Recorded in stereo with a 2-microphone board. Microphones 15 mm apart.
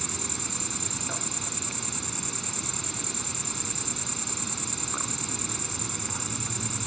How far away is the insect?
About 1.0 m.